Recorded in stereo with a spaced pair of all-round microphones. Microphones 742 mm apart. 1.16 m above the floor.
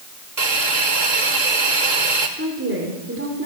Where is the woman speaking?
15° right (ahead or behind), 4 m.